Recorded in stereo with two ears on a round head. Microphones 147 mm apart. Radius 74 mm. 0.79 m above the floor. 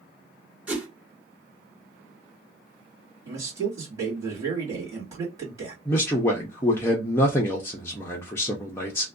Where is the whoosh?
10° right (ahead or behind), 1.3 m.